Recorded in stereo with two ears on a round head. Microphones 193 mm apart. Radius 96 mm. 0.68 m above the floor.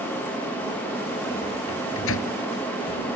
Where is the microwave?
65° left (ahead or behind).